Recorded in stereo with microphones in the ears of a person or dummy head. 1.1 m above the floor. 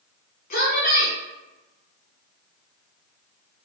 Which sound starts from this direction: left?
A woman speaking, at 0.5 s.